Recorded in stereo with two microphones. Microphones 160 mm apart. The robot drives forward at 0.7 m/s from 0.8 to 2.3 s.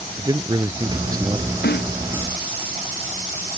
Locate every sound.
0.2 s a man speaking: 25° right (ahead or behind); by 1.6 s 20° right (ahead or behind)
1.6 s a snare drum: 85° left